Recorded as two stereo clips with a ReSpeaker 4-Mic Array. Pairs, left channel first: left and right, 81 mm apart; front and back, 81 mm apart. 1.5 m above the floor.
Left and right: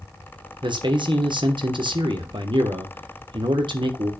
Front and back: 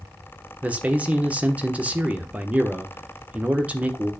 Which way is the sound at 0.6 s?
105° right.